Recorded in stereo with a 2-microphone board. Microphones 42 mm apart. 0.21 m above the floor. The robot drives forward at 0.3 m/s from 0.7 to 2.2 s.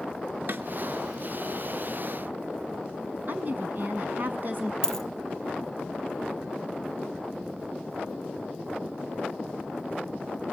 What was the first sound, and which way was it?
A snare drum, 55° right (ahead or behind).